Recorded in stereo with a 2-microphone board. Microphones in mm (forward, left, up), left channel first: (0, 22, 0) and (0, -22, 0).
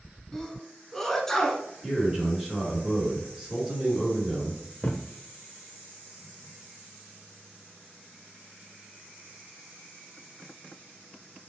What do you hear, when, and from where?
0.3 s a sneeze: 10° left (ahead or behind), 1.1 m
1.8 s a man speaking: 10° right (ahead or behind), 1.8 m
4.8 s a thud: 30° left (ahead or behind), 0.8 m